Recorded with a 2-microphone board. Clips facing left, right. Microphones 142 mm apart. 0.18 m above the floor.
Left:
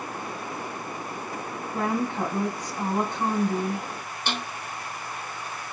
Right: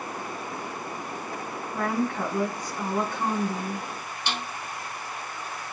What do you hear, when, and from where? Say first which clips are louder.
1.7 s a woman speaking: even; 20° left (ahead or behind), 1.1 m
4.3 s a snare drum: left 1 dB; 45° left (ahead or behind), 1.5 m